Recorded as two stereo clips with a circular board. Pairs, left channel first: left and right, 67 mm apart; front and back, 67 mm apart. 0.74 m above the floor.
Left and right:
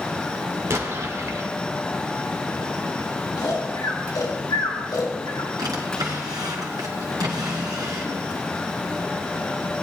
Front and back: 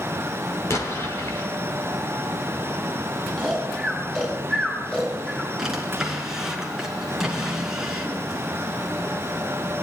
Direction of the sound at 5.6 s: 95° right.